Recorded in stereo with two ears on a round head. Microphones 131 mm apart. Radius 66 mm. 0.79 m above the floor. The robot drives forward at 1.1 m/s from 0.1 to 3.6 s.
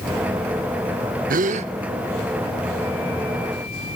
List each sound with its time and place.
1.3 s a gasp: 65° right (ahead or behind), 0.7 m; by 1.7 s 45° right (ahead or behind), 0.9 m